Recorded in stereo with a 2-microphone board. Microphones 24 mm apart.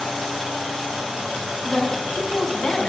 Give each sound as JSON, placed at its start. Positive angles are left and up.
{"t": 1.6, "sound": "a woman speaking", "side_deg": -5, "distance_m": 4.5}